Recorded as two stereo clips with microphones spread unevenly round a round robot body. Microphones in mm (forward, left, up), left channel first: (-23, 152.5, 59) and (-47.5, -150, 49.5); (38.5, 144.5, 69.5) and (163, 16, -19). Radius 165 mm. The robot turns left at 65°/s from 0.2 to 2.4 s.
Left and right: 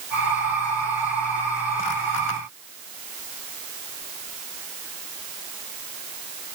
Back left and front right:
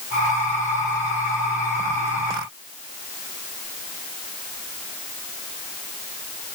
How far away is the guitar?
I don't hear a guitar.